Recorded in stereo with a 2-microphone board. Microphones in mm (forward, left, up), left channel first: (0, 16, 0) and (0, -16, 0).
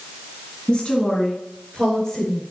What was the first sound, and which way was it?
A woman speaking, 30° left (ahead or behind).